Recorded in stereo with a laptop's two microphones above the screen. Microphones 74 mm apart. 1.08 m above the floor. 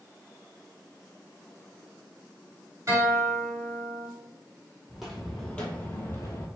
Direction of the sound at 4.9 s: 5° right (ahead or behind).